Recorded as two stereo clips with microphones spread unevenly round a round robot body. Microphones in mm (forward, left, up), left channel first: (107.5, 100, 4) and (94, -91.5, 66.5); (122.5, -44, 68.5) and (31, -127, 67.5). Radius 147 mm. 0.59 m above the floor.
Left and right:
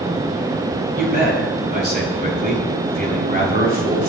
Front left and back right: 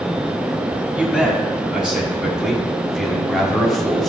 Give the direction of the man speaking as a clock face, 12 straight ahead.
2 o'clock.